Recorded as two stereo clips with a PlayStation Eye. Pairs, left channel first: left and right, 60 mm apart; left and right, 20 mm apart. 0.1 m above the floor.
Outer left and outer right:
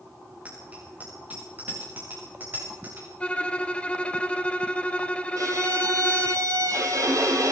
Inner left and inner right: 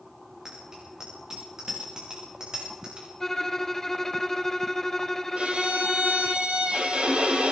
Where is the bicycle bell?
25° right (ahead or behind), 10 m; by 3.1 s 30° right (ahead or behind), 11.5 m.